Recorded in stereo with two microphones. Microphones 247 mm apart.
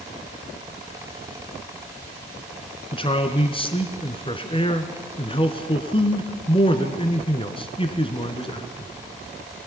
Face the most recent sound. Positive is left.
turn(degrees=20)  # may be behind; listen again after turning